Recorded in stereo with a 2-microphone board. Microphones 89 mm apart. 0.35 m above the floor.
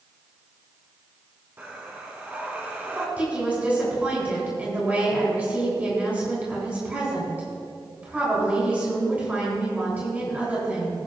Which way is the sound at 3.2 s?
15° right (ahead or behind).